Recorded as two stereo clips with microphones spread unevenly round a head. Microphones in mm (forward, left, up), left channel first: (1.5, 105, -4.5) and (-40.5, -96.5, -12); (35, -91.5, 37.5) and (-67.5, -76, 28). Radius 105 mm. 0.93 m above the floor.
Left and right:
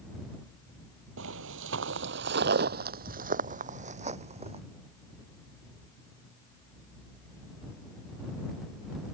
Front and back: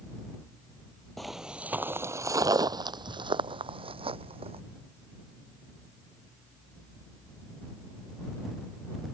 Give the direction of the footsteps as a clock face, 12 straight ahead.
3 o'clock.